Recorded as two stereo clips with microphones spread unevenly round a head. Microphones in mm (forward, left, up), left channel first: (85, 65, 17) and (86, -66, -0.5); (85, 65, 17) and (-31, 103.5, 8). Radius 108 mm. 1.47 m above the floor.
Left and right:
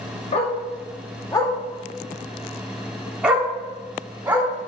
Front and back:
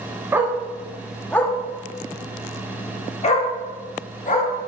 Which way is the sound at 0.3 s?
90° left.